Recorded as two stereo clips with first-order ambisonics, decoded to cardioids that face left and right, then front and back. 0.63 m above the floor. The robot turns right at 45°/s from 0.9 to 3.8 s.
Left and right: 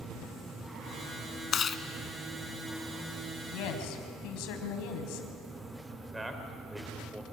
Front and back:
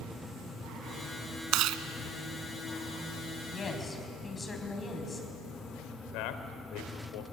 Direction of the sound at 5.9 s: 5° right.